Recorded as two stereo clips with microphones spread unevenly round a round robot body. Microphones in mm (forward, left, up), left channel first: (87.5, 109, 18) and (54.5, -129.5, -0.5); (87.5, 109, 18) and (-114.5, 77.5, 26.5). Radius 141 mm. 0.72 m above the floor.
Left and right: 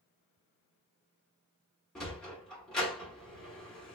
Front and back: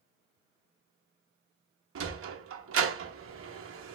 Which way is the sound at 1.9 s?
170° left.